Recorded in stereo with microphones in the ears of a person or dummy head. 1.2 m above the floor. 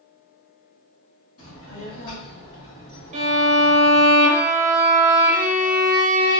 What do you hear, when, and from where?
1.4 s a child speaking: 85° left, 1.6 m; by 4.1 s 25° left (ahead or behind), 1.6 m
3.1 s a violin: 35° right (ahead or behind), 0.7 m